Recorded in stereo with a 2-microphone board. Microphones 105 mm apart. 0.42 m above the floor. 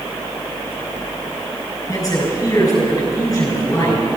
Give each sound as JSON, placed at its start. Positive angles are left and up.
{"t": 1.9, "sound": "a man speaking", "side_deg": 35, "distance_m": 5.5}